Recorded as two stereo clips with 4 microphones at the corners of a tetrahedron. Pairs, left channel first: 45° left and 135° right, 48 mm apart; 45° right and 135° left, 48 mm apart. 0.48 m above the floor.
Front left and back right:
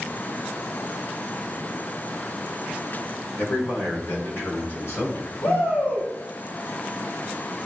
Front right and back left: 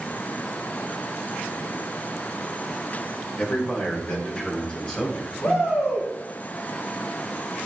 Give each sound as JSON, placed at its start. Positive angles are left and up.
{"t": 3.4, "sound": "a man speaking", "azimuth_deg": 15, "distance_m": 5.0}
{"t": 5.4, "sound": "a shout", "azimuth_deg": 20, "distance_m": 3.5}